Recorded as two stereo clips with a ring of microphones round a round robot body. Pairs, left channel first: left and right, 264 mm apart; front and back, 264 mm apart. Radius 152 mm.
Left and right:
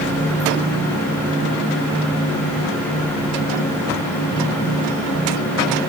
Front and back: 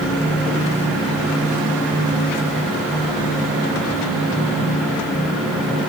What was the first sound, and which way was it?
Only background noise.